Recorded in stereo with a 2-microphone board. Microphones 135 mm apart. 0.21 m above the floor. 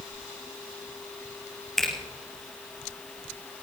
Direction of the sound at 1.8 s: Centre (ahead or behind).